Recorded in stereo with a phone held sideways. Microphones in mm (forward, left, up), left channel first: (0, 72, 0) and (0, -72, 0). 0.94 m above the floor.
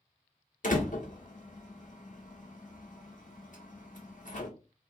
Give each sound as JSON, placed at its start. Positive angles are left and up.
{"t": 0.6, "sound": "a door slam", "side_deg": 65, "distance_m": 1.2}